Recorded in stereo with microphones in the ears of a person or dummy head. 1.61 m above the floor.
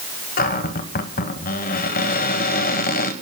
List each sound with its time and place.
0.4 s a cupboard door: 45° left (ahead or behind), 1.3 m